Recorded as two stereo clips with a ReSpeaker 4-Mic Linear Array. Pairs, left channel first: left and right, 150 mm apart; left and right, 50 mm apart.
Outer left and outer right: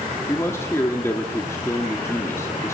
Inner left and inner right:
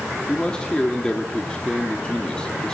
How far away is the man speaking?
About 1.5 m.